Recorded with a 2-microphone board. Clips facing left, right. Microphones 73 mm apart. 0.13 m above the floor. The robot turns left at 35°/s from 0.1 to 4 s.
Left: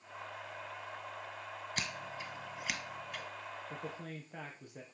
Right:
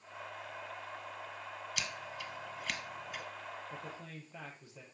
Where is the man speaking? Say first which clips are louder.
Left 2 dB; 55° left (ahead or behind), 3.5 m; by 4.8 s 50° left (ahead or behind), 3.5 m.